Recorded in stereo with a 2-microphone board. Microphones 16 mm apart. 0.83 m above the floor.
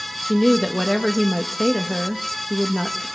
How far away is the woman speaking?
About 0.8 m.